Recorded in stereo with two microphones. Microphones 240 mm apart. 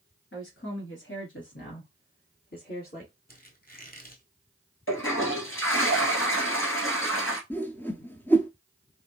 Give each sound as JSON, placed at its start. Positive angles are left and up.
{"t": 0.3, "sound": "a woman speaking", "side_deg": 55, "distance_m": 1.8}
{"t": 3.3, "sound": "a squeak", "side_deg": 40, "distance_m": 1.1}
{"t": 4.9, "sound": "a toilet flushing", "side_deg": 60, "distance_m": 1.4}
{"t": 7.5, "sound": "a whoosh", "side_deg": 10, "distance_m": 0.6}